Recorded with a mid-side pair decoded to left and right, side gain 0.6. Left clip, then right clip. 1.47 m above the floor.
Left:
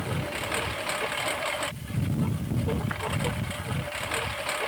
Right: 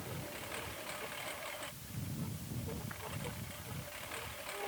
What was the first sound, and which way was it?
A lawn mower, 60° left.